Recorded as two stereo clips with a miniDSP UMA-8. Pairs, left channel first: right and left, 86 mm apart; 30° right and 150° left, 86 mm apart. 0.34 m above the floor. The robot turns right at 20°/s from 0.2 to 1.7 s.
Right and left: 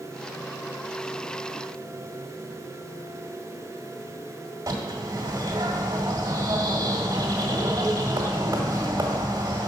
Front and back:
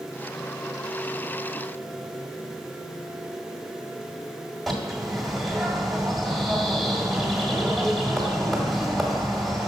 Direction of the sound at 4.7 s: 60° left.